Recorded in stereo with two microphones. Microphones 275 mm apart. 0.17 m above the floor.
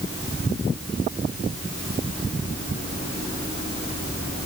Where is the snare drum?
I don't hear a snare drum.